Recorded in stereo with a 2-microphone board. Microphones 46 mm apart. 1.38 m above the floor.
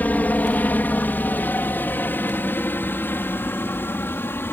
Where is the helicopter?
35° left (ahead or behind); by 4.5 s 50° left (ahead or behind).